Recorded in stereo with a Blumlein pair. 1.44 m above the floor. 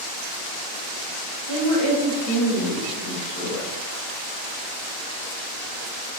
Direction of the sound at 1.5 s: 65° left.